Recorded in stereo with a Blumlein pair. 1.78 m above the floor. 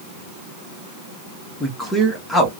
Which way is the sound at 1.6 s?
10° left.